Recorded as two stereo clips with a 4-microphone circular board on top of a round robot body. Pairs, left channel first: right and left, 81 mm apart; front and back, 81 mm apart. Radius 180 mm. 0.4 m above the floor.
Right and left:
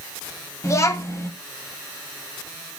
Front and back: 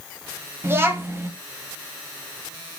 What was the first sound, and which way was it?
A child speaking, 125° right.